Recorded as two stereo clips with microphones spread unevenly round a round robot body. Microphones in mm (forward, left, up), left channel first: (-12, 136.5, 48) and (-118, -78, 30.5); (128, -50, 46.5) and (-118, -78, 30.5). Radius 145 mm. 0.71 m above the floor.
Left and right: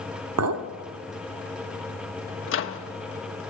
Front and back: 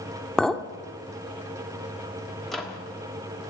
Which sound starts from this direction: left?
A microwave, at 2.5 s.